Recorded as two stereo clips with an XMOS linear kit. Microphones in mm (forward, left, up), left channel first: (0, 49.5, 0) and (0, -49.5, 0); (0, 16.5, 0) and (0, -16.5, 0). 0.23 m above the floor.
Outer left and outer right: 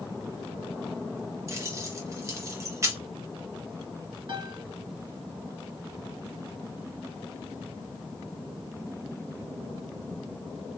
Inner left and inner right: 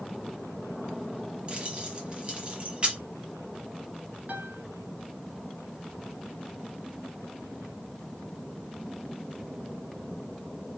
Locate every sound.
1.5 s keys jangling: 30° right (ahead or behind), 1.2 m
4.3 s a piano: 50° right (ahead or behind), 1.0 m